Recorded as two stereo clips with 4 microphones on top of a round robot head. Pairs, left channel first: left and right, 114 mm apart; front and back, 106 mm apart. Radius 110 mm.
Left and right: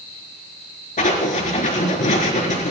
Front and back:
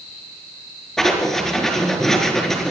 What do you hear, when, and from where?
1.0 s writing: 85° left, 4.5 m